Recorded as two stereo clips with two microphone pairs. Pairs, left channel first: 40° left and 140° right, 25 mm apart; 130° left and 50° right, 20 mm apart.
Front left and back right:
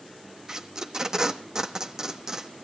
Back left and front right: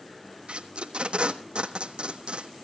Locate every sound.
0.5 s tape being pulled: 80° right, 1.2 m